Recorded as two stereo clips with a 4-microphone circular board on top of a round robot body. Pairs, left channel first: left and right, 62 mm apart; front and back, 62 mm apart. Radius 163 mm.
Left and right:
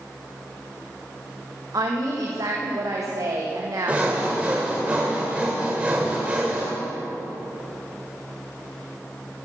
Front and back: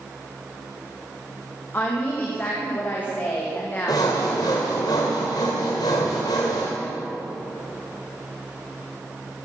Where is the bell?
No bell in this recording.